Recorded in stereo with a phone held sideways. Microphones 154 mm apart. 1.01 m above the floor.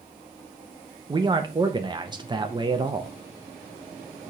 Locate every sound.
1.1 s a man speaking: 30° right (ahead or behind), 0.5 m